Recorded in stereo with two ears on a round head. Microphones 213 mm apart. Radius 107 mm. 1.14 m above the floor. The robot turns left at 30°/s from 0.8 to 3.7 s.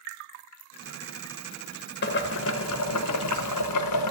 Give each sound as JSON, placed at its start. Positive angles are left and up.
{"t": 2.0, "sound": "boiling", "azimuth_deg": 135, "distance_m": 0.6}